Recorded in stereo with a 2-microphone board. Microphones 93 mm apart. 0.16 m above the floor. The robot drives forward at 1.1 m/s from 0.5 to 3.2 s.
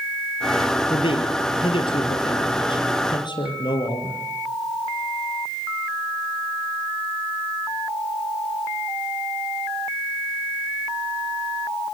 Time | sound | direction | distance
0.9 | a man speaking | 65° left (ahead or behind) | 4 m